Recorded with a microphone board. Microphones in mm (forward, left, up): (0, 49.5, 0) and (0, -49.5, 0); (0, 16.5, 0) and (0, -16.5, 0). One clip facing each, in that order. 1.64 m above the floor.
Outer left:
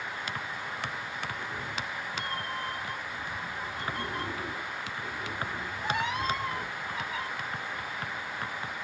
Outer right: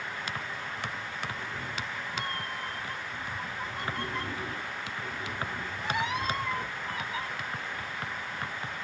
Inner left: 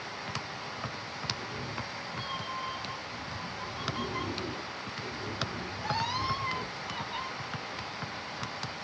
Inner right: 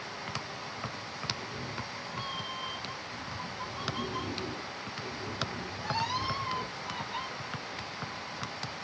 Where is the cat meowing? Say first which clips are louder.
Outer left 1 dB, inner left 1 dB; centre (ahead or behind), 1.1 m.